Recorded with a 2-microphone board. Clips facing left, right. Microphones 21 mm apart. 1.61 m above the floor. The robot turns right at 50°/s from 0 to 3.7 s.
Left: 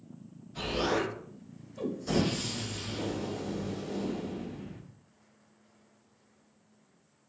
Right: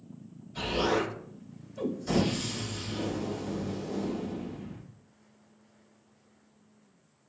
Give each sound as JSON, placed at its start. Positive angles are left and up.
{"t": 0.6, "sound": "an explosion", "azimuth_deg": -75, "distance_m": 1.5}